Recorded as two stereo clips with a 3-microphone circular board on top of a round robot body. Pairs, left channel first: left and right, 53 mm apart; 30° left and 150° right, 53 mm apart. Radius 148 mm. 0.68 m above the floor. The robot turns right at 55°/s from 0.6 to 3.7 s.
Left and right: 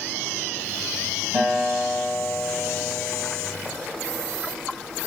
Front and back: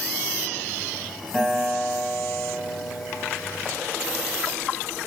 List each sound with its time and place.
1.3 s a guitar: 60° right, 2.0 m; by 3.6 s 60° left, 2.0 m